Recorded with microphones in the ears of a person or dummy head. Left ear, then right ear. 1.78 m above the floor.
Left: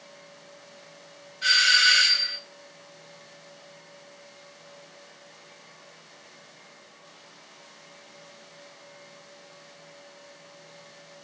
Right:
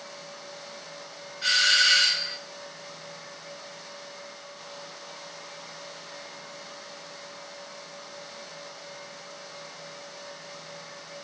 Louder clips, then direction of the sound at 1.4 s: Left 2 dB; 15° left (ahead or behind).